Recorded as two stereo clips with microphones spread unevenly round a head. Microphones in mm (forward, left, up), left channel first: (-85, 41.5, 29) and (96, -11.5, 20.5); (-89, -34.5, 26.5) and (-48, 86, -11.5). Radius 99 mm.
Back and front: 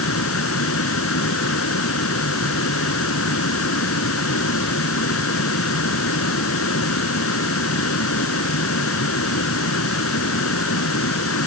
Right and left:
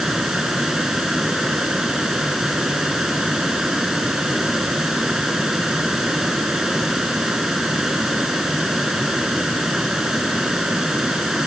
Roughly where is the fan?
Behind.